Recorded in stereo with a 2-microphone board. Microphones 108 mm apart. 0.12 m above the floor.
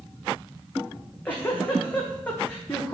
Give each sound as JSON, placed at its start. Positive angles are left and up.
{"t": 0.9, "sound": "a giggle", "side_deg": 15, "distance_m": 2.0}